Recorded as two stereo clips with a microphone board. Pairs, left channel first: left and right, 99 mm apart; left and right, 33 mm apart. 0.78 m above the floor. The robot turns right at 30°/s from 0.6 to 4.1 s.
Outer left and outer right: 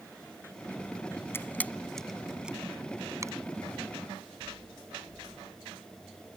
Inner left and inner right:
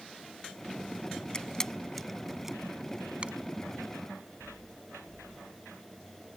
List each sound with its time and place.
1.3 s a camera shutter: 25° left (ahead or behind); by 3.3 s 35° right (ahead or behind)